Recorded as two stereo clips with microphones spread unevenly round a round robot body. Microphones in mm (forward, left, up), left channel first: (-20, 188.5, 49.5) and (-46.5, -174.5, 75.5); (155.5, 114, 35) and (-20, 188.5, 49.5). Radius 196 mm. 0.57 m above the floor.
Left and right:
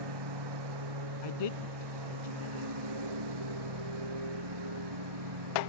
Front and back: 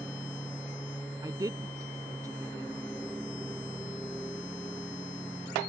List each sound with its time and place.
0.0 s a lawn mower: 110° right
1.2 s a woman speaking: 85° left